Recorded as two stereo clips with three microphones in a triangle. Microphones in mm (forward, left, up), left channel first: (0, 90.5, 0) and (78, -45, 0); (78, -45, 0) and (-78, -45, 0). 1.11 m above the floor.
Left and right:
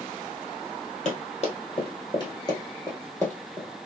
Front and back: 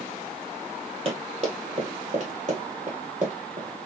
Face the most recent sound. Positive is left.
turn(degrees=-155)